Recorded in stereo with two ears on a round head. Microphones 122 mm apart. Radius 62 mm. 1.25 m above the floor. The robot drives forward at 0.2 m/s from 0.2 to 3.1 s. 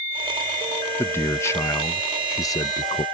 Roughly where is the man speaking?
Centre.